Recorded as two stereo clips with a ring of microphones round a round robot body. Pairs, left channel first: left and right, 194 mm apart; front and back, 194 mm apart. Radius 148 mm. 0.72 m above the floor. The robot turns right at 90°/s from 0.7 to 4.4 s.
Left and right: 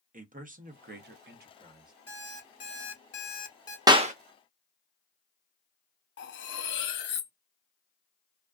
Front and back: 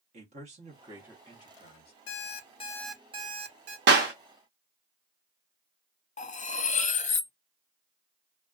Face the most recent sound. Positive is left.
turn(degrees=55)